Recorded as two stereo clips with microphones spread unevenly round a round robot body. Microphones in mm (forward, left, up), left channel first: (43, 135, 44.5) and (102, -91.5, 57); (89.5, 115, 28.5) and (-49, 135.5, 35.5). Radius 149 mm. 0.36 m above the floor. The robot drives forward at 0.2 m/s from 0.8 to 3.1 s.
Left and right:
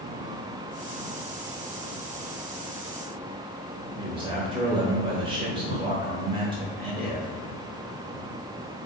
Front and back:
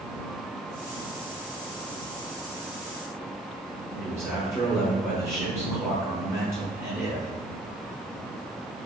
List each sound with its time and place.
4.0 s a man speaking: 130° right, 1.0 m